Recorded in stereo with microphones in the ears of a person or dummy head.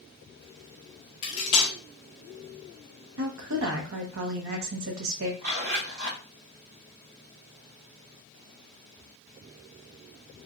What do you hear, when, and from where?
1.2 s cutlery clinking: 30° left (ahead or behind), 0.5 m
3.2 s a woman speaking: 70° right (ahead or behind), 0.9 m
5.4 s a zipper: 65° right (ahead or behind), 2 m